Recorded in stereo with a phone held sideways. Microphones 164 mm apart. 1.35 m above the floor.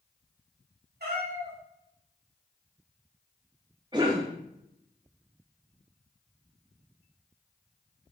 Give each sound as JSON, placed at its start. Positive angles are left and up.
{"t": 1.0, "sound": "a cat meowing", "side_deg": -75, "distance_m": 1.9}
{"t": 3.9, "sound": "a cough", "side_deg": -25, "distance_m": 0.6}